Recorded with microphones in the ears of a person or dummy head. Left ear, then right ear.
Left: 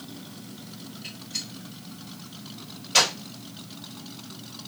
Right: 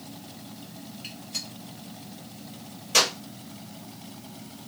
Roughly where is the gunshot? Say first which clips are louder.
Left 1 dB; right.